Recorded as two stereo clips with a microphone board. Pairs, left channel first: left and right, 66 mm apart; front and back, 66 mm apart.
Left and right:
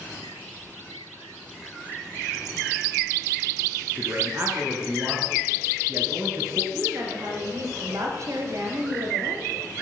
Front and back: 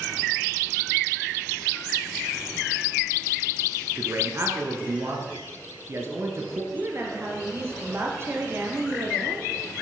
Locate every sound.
4.0 s a man speaking: 140° right, 2.5 m
6.7 s a woman speaking: 130° right, 2.5 m